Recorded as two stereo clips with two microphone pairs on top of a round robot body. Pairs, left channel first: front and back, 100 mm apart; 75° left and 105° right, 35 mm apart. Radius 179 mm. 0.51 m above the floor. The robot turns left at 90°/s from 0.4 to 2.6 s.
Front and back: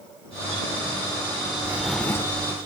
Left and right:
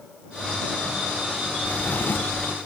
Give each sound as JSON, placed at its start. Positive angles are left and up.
{"t": 1.6, "sound": "a drawer", "azimuth_deg": 115}